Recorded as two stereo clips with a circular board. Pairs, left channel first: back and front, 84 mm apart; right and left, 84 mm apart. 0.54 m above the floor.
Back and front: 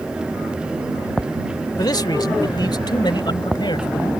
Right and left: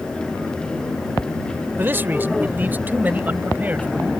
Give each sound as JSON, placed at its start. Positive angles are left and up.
{"t": 1.8, "sound": "a man speaking", "azimuth_deg": 150}